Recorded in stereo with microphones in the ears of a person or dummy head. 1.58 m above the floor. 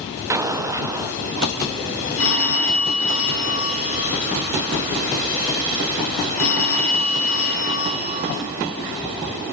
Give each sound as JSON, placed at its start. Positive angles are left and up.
{"t": 0.3, "sound": "an explosion", "side_deg": -20, "distance_m": 0.6}
{"t": 2.2, "sound": "a phone ringing", "side_deg": 70, "distance_m": 2.5}